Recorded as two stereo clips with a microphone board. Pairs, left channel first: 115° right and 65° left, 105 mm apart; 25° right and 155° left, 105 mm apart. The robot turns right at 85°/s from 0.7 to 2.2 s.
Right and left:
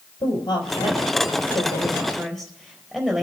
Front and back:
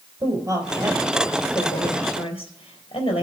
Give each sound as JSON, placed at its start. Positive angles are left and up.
{"t": 0.2, "sound": "a woman speaking", "azimuth_deg": -155, "distance_m": 3.5}